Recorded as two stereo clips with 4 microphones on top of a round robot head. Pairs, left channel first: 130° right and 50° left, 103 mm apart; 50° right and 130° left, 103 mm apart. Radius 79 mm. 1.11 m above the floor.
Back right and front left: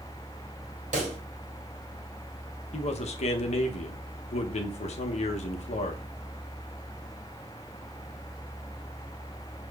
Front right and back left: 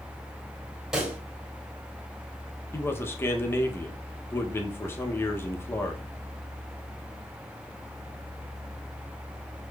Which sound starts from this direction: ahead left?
A pop, at 0.9 s.